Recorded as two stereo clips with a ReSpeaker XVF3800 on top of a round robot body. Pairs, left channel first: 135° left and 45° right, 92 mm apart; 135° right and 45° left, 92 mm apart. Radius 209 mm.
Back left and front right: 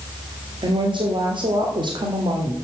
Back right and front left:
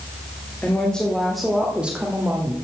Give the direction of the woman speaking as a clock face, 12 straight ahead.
2 o'clock.